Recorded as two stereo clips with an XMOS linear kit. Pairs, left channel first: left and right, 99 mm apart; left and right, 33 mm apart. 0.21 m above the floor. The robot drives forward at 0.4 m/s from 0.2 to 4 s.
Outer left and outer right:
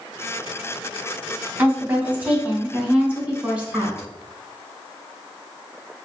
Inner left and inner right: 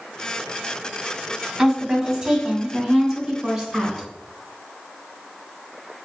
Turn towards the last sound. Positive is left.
turn(degrees=-10)  # may be behind; listen again after turning